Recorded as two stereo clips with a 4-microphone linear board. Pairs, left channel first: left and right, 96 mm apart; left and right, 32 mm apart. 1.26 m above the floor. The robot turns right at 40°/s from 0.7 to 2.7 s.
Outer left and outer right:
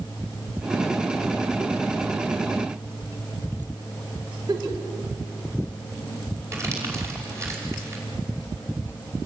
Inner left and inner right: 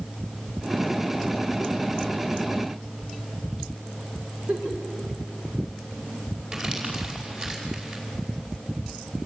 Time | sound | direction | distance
4.5 | a giggle | 40° right (ahead or behind) | 3.5 m
6.5 | crumpling | 30° right (ahead or behind) | 5.5 m